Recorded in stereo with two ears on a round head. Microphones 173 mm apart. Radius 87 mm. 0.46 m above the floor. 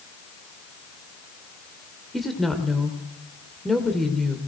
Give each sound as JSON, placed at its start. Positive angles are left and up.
{"t": 2.1, "sound": "a woman speaking", "side_deg": 0, "distance_m": 1.8}